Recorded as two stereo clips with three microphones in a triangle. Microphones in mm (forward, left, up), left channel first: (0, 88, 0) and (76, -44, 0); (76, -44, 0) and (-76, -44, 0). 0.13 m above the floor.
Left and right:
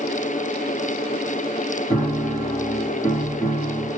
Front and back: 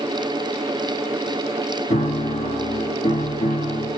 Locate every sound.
1.9 s a piano: 40° left, 1.9 m